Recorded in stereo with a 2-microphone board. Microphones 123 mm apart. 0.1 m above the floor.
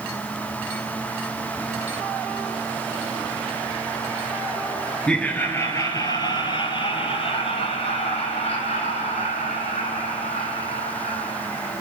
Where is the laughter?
5° left (ahead or behind), 1.2 m; by 11.7 s 60° left (ahead or behind), 5.5 m.